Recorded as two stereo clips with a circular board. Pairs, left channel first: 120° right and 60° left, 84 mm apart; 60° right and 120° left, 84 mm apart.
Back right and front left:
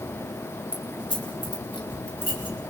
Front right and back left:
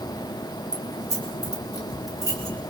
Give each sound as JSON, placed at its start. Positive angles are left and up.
{"t": 0.7, "sound": "keys jangling", "azimuth_deg": -115, "distance_m": 3.5}